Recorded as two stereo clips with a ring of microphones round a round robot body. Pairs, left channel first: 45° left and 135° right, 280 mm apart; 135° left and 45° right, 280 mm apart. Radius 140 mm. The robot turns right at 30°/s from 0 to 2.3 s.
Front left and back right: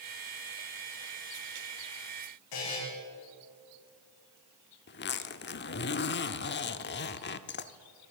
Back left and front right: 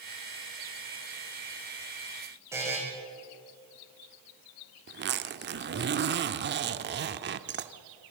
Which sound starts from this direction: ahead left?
A buzzer, at 2.5 s.